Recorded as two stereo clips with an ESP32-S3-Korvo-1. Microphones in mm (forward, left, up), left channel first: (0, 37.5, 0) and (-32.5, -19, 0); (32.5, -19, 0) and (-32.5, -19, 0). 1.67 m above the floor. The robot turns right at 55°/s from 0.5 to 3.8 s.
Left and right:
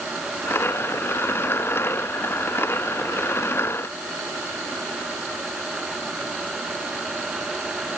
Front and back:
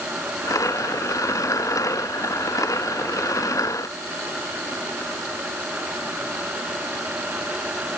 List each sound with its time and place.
Only background noise.